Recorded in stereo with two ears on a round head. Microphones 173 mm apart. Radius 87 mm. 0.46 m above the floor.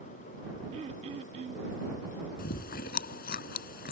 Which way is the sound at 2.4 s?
55° left (ahead or behind).